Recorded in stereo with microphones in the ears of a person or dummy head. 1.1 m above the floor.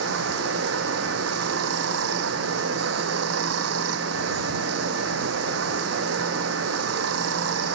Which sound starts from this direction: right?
Running water, at 0.0 s.